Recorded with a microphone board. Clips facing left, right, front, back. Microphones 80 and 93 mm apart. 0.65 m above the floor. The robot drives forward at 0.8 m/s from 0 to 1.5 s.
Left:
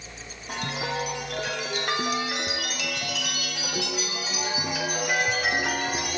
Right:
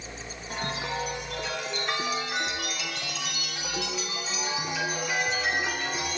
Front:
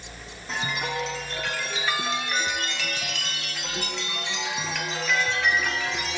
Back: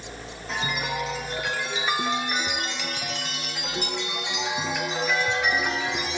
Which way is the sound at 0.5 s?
90° left.